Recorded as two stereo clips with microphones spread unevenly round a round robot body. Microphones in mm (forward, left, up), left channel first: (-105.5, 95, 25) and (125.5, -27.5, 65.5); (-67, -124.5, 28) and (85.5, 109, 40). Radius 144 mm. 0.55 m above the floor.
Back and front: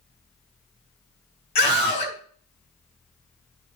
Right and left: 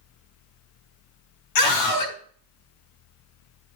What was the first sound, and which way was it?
A scream, 140° right.